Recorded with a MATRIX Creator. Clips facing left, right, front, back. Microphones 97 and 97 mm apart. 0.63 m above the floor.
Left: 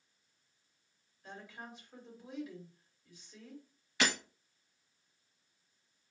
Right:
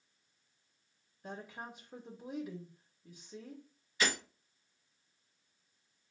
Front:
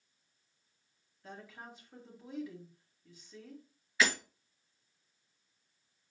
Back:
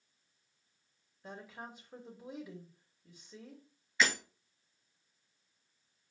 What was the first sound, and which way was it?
A woman speaking, 115° right.